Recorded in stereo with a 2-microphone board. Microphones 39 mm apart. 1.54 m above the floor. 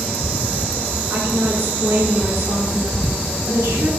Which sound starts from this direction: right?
A woman speaking, at 1.1 s.